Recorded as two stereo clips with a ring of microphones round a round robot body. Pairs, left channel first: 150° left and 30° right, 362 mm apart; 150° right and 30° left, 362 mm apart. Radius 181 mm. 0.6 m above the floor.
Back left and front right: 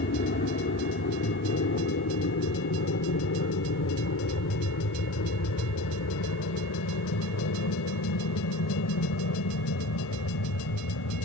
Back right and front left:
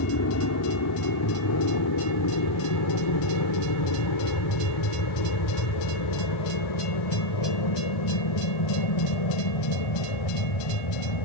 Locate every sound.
0.0 s an aircraft: 165° right; by 11.3 s 160° right